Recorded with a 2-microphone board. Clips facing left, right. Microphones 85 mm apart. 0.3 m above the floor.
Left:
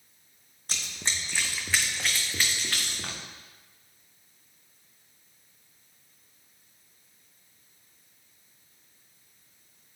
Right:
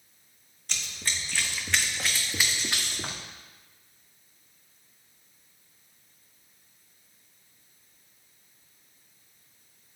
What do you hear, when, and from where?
0.7 s running footsteps: 40° left (ahead or behind), 1.0 m; by 3.2 s 20° right (ahead or behind), 1.9 m